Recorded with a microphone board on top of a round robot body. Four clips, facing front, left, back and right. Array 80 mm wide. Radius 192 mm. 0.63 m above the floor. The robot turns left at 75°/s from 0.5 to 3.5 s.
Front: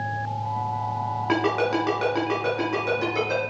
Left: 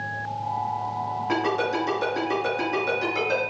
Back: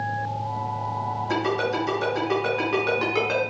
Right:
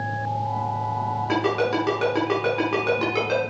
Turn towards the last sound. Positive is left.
turn(degrees=-170)